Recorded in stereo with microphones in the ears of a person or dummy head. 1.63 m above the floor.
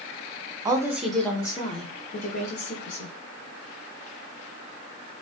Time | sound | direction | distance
0.7 | a woman speaking | 25° right (ahead or behind) | 0.6 m